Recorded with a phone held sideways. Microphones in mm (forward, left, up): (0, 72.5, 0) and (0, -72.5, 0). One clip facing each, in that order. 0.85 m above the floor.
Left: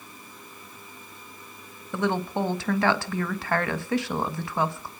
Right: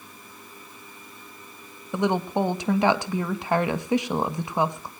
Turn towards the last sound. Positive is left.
turn(degrees=-20)  # may be behind; listen again after turning